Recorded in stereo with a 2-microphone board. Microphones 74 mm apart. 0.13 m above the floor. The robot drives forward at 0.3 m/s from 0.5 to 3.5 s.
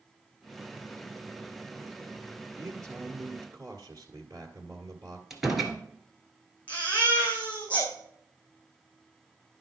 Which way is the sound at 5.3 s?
5° right (ahead or behind).